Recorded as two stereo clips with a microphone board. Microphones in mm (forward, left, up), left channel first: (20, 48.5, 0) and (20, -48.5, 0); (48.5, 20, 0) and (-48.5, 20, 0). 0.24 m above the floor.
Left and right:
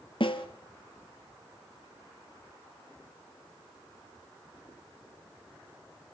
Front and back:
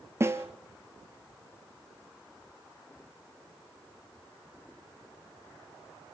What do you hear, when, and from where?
0.2 s a snare drum: 115° left, 1.5 m